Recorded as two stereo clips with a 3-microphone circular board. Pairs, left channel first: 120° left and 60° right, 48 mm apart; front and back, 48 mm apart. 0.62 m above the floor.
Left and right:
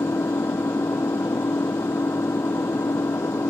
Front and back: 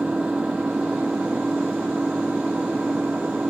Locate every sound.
0.0 s an engine running: 115° left